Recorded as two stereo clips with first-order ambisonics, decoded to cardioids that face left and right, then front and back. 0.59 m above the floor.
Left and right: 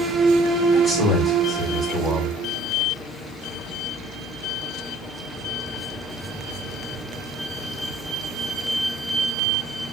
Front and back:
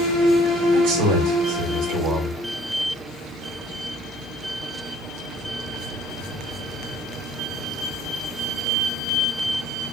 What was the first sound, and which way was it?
A man speaking, 170° left.